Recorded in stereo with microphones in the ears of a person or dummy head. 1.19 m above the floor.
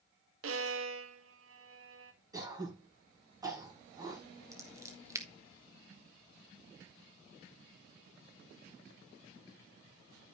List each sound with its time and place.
0.4 s a violin: 80° right, 1.4 m
2.3 s throat clearing: 20° right (ahead or behind), 5 m
4.5 s scissors: 15° right (ahead or behind), 1.2 m